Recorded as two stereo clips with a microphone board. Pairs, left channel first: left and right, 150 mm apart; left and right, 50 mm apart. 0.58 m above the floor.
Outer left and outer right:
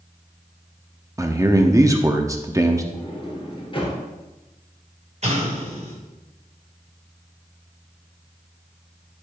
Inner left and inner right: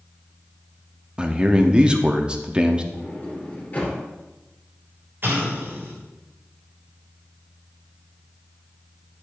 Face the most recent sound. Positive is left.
turn(degrees=-50)  # may be behind; listen again after turning